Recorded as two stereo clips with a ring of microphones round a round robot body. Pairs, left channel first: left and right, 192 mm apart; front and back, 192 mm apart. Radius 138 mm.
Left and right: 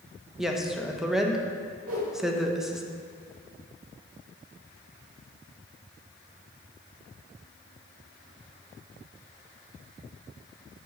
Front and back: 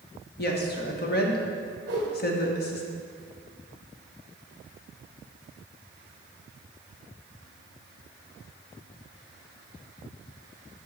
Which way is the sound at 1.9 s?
125° right.